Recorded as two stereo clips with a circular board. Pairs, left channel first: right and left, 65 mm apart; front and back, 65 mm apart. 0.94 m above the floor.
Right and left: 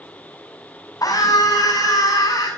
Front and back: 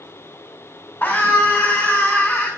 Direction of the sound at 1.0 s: 60° right.